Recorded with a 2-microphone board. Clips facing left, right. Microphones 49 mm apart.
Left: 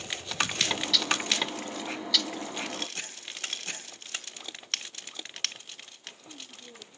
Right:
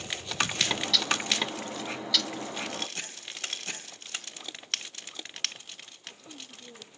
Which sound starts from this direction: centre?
A bird, at 0.7 s.